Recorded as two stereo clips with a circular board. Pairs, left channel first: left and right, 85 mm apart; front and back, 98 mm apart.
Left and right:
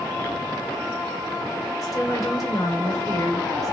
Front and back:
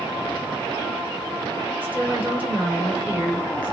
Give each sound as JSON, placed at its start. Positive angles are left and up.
{"t": 1.8, "sound": "a woman speaking", "azimuth_deg": 115, "distance_m": 1.7}